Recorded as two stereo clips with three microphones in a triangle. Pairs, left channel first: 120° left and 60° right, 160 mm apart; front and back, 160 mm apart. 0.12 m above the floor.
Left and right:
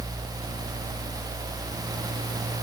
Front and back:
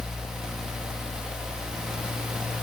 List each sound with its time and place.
Only background noise.